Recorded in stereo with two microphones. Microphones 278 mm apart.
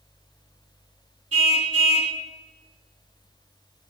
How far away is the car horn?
About 3 m.